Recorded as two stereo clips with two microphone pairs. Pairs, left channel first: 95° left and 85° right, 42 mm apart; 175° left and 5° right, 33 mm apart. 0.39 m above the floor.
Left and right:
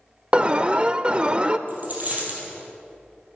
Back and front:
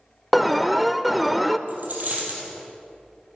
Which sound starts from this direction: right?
An alarm, at 0.3 s.